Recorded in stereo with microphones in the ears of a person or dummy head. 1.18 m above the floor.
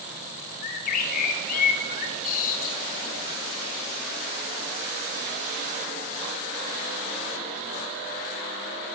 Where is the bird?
50° left (ahead or behind), 0.9 m.